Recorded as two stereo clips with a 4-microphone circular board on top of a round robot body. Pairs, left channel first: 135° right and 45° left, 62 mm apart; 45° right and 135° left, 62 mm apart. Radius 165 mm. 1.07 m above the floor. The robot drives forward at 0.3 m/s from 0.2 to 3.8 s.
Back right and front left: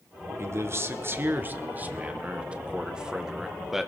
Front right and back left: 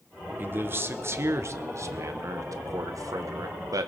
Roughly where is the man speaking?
Left.